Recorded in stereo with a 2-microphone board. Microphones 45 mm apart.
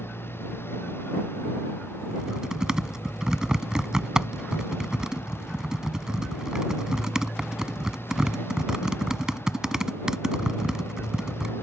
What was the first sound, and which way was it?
A motorcycle, 60° left (ahead or behind).